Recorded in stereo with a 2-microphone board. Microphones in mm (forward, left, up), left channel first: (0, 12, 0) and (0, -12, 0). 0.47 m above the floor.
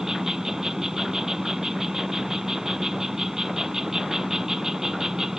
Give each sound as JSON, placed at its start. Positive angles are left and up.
{"t": 0.0, "sound": "an insect", "side_deg": -15}